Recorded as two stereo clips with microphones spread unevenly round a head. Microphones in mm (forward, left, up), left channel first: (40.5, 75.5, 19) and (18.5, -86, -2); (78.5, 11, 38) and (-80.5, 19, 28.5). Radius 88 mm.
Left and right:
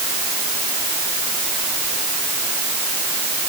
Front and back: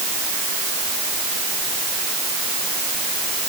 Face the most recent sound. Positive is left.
No sound to turn to.